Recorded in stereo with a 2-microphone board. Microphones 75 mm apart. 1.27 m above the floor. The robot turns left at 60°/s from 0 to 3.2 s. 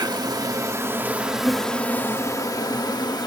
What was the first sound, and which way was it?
An insect, 90° right.